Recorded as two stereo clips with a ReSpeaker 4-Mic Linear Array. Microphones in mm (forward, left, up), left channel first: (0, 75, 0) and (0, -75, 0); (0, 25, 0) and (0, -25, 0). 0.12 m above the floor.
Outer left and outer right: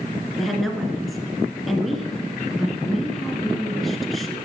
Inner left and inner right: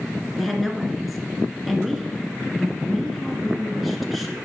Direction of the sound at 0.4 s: Centre (ahead or behind).